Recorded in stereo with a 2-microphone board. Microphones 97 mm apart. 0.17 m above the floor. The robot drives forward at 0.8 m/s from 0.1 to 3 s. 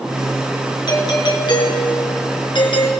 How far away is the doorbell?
About 4 m.